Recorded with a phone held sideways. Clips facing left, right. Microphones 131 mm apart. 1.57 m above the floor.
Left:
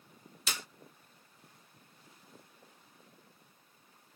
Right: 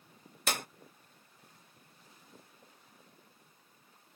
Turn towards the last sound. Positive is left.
turn(degrees=-55)  # may be behind; listen again after turning